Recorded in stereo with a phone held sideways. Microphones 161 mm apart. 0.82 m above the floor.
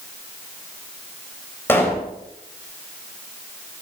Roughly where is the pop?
Centre.